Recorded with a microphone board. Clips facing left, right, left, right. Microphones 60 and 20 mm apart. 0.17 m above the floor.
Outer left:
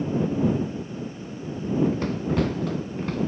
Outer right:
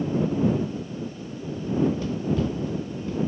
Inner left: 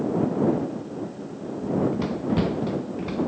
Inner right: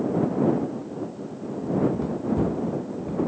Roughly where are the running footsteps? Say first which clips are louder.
Outer left 1 dB, even; left.